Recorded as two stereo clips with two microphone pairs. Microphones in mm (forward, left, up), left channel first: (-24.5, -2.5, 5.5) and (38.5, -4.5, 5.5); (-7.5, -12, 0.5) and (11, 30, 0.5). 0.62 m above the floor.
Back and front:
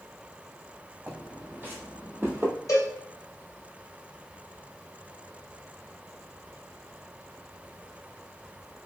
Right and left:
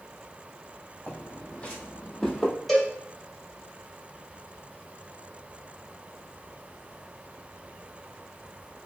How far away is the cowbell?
About 1.5 m.